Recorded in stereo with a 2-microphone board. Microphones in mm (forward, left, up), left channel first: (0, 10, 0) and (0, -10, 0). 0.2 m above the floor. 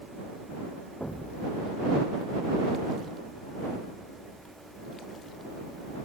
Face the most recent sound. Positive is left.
turn(degrees=30)  # may be behind; listen again after turning